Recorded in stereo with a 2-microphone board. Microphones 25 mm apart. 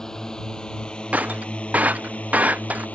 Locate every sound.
0.0 s a drone: 25° left (ahead or behind); by 3.0 s 80° left
1.1 s breaking glass: 85° right